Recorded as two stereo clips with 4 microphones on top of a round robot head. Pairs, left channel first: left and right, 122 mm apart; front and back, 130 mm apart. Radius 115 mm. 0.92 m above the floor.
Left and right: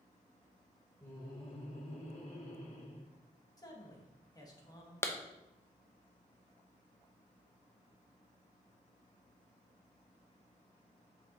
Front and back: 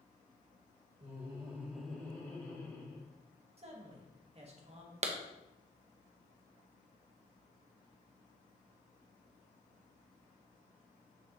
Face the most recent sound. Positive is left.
turn(degrees=160)